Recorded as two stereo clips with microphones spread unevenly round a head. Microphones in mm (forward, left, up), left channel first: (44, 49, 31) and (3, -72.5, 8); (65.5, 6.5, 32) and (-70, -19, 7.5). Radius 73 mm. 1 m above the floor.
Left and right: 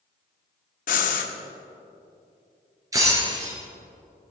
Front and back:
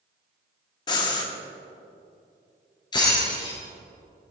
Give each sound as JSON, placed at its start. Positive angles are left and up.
{"t": 0.9, "sound": "breathing", "azimuth_deg": 65, "distance_m": 0.9}
{"t": 2.9, "sound": "breaking glass", "azimuth_deg": -45, "distance_m": 3.5}